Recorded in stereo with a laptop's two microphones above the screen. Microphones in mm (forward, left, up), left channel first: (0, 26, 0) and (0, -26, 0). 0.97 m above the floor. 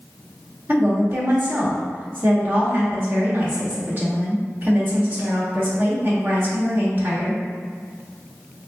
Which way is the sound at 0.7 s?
40° right (ahead or behind).